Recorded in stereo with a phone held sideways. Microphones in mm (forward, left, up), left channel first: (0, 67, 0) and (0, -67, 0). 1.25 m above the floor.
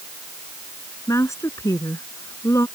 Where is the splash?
I don't hear a splash.